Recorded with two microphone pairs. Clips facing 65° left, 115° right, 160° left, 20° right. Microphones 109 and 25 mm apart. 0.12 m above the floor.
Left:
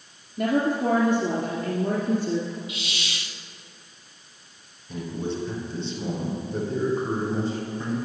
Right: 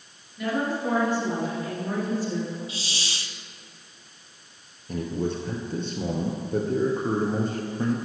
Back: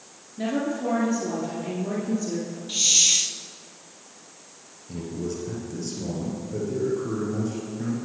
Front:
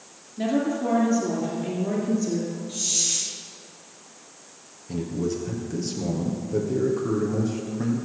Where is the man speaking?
90° right, 2.5 m.